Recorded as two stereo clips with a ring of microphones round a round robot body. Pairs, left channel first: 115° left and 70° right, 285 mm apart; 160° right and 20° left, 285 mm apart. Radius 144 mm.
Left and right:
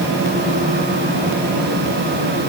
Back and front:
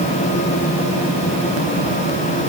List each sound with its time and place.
Only background noise.